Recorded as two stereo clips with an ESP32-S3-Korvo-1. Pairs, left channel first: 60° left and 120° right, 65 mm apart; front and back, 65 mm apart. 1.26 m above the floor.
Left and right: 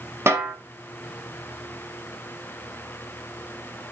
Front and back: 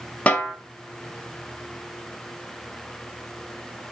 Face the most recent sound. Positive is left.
turn(degrees=-70)